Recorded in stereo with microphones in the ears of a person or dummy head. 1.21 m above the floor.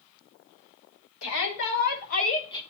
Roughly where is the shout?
Left.